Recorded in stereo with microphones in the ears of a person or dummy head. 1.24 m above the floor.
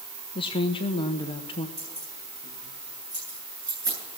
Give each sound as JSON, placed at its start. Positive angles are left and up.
{"t": 0.3, "sound": "a woman speaking", "side_deg": 20, "distance_m": 0.8}
{"t": 1.8, "sound": "keys jangling", "side_deg": -25, "distance_m": 10.0}